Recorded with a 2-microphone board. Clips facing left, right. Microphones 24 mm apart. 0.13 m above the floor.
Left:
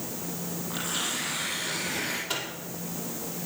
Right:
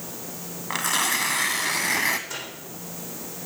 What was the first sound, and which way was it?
Tearing paper, 80° right.